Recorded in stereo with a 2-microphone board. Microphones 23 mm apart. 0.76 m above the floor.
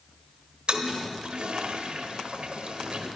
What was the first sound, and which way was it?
A toilet flushing, 55° right (ahead or behind).